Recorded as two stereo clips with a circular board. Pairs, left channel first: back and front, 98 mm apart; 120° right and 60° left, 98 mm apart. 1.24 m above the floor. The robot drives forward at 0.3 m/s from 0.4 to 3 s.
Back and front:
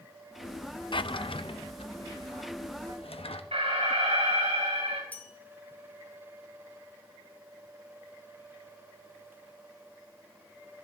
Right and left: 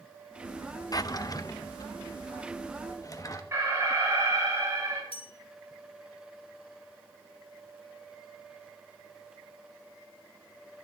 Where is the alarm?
5° right, 8.5 m.